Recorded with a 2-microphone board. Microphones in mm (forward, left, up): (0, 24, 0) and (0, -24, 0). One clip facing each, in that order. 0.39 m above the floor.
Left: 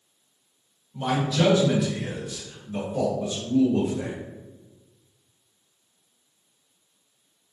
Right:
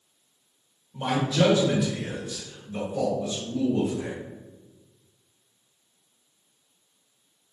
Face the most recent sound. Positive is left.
turn(degrees=50)  # may be behind; listen again after turning